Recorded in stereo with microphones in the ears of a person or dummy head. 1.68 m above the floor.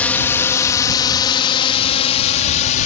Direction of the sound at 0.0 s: 10° left (ahead or behind).